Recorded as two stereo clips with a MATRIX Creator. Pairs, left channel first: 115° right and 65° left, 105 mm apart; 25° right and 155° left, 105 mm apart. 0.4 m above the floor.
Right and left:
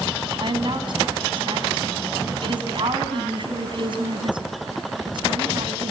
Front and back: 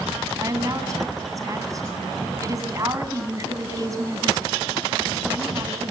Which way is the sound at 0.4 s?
100° left.